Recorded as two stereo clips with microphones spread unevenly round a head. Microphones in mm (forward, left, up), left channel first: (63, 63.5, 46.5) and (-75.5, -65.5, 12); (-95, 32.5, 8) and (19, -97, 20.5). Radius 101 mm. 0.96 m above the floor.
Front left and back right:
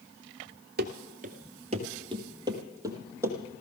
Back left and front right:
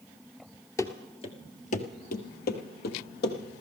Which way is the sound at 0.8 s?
160° right.